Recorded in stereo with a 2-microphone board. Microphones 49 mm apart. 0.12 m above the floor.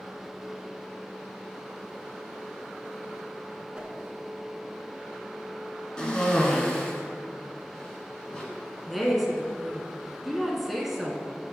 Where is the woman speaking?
Centre (ahead or behind), 1.0 m.